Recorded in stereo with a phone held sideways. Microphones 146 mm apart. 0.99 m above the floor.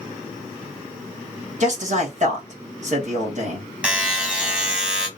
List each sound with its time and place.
1.6 s a man speaking: 55° right (ahead or behind), 1.4 m
3.8 s a buzzer: 5° right (ahead or behind), 0.9 m